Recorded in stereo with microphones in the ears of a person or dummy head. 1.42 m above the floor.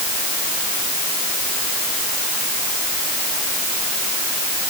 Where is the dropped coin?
No dropped coin in this recording.